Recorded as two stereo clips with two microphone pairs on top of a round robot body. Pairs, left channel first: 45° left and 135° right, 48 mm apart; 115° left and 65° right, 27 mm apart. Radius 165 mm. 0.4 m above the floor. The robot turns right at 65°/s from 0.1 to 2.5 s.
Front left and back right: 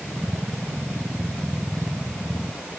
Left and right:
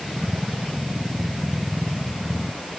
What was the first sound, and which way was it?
Only background noise.